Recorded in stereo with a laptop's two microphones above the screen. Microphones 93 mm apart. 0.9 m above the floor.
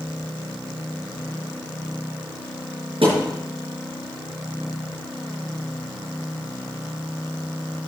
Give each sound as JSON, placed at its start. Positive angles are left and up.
{"t": 3.0, "sound": "a thud", "side_deg": -75, "distance_m": 5.5}